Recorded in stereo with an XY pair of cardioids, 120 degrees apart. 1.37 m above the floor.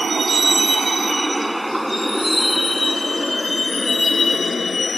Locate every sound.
0.0 s a vehicle: 25° right; by 5.0 s 25° left